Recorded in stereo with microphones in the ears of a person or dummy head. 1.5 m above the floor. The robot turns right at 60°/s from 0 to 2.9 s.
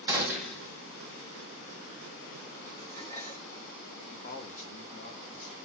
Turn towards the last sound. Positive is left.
turn(degrees=40)  # may be behind; listen again after turning